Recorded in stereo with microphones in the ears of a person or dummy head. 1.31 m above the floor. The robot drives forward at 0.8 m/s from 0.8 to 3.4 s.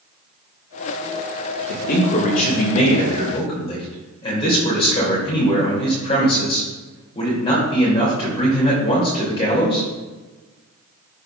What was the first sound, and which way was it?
A man speaking, 60° left (ahead or behind).